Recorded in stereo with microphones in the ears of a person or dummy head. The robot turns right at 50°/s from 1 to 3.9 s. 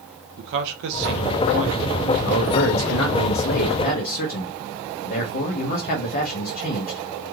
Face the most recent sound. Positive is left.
turn(degrees=135)